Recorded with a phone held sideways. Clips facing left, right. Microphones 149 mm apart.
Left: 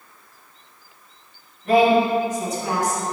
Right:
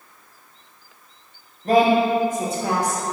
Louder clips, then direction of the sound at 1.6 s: Even; 35° right (ahead or behind).